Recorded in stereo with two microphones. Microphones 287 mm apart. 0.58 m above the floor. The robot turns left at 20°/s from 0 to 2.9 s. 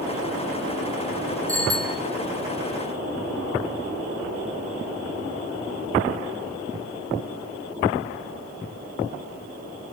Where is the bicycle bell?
30° right (ahead or behind), 3.5 m; by 2.0 s 40° right (ahead or behind), 3.5 m.